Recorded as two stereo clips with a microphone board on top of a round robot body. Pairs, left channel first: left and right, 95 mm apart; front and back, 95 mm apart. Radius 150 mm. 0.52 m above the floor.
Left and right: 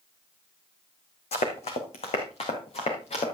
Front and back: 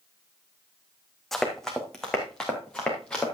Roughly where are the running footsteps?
Left.